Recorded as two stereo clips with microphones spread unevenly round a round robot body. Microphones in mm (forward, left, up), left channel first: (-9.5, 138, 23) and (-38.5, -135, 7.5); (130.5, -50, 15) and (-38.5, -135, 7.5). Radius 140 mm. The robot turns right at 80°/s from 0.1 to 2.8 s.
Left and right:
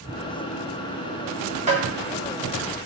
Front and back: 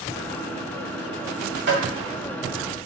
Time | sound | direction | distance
1.7 | tapping | 160° right | 2.0 m